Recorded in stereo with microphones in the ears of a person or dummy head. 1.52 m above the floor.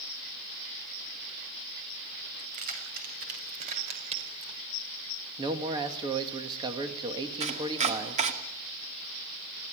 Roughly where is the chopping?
Right.